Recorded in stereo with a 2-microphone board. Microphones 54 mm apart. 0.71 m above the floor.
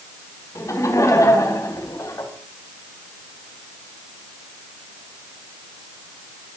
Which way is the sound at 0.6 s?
75° left (ahead or behind).